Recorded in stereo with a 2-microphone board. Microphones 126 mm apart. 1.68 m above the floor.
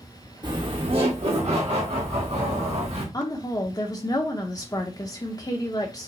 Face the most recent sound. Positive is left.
turn(degrees=30)  # may be behind; listen again after turning